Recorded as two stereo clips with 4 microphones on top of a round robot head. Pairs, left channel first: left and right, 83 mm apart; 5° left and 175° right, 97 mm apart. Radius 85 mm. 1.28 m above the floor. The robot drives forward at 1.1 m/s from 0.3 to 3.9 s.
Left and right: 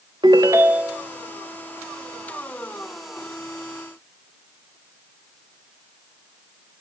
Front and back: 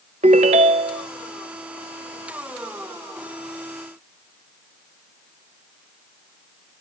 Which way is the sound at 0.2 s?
150° right.